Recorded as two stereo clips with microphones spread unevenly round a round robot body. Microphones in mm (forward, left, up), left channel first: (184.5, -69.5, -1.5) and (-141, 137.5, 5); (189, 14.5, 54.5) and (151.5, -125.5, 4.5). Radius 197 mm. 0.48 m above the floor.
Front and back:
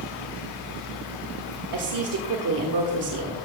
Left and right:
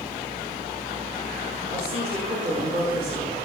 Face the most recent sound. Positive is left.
turn(degrees=170)